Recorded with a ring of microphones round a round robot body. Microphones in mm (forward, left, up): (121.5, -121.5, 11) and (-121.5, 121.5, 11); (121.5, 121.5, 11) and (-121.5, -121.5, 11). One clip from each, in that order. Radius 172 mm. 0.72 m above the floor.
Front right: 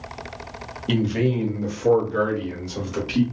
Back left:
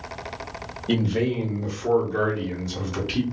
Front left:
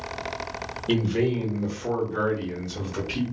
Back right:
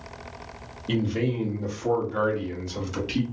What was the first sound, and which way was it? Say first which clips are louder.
A man speaking: front right 1 dB, front left 3 dB; 20° right.